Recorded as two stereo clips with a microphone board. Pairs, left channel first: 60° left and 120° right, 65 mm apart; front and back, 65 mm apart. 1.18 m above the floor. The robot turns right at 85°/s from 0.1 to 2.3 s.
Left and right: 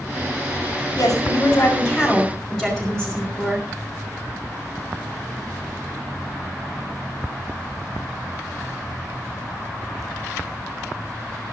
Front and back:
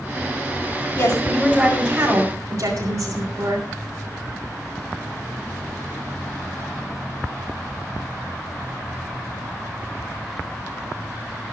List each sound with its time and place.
1.0 s a woman speaking: 25° left, 5 m; by 3.7 s 140° left, 5 m